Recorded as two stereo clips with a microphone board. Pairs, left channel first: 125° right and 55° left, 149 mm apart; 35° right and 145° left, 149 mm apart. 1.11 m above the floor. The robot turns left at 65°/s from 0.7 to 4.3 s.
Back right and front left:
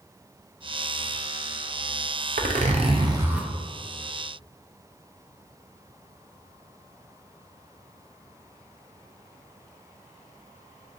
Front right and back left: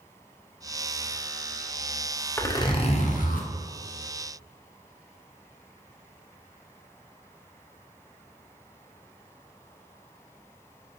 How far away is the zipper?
About 0.5 m.